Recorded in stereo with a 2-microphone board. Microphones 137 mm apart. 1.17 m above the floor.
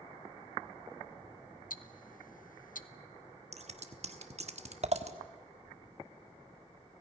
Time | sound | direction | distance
1.7 | ticking | 80° left | 0.7 m
3.5 | scissors | 50° right (ahead or behind) | 1.3 m